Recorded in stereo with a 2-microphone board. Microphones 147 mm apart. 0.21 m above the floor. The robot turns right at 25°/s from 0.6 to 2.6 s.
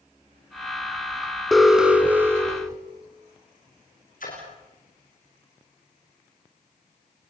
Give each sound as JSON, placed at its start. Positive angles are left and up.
{"t": 1.5, "sound": "an alarm", "side_deg": 0, "distance_m": 2.0}
{"t": 4.2, "sound": "a splash", "side_deg": 65, "distance_m": 8.5}